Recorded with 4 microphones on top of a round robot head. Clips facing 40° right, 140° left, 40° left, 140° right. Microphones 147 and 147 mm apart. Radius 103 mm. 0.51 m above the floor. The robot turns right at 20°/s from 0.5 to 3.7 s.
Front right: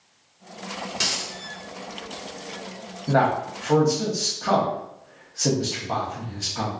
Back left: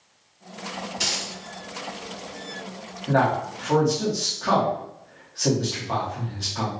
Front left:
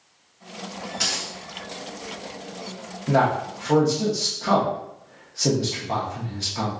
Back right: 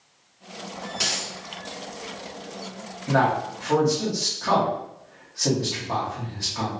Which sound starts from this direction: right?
A dropped coin, at 0.9 s.